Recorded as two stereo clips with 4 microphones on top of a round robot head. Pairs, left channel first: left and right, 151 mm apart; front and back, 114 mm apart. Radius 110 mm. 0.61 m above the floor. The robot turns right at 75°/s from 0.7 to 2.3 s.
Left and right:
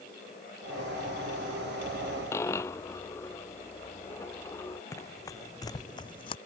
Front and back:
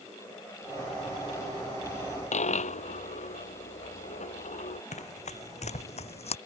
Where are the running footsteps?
15° left; by 6.4 s 25° left.